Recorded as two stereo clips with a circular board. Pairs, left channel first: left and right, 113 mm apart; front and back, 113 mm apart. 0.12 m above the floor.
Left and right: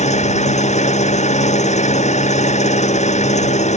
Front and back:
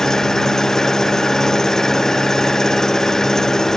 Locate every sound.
0.0 s an engine running: 85° left